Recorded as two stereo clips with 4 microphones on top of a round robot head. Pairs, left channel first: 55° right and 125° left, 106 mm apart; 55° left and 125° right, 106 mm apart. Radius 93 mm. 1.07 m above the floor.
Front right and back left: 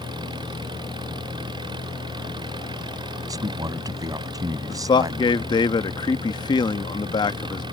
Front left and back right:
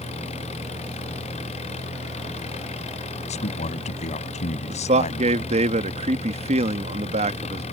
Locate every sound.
0.0 s an engine running: 75° left
3.3 s a man speaking: 70° left
4.7 s a man speaking: 105° right